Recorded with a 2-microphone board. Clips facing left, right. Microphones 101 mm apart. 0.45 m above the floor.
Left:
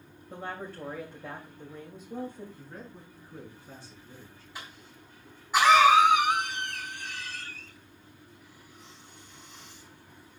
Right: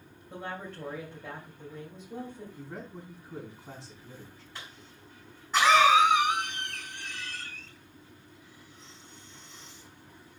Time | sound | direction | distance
0.3 | a woman speaking | 10° left (ahead or behind) | 2.5 m
2.6 | a man speaking | 75° right (ahead or behind) | 4 m
4.5 | a cough | 10° left (ahead or behind) | 4 m